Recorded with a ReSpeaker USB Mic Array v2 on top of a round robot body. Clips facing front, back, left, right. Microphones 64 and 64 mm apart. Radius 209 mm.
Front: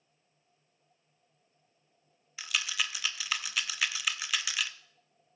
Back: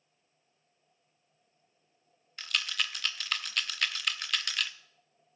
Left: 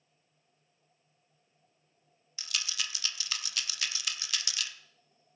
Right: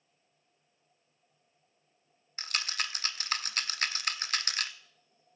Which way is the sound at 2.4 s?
85° right.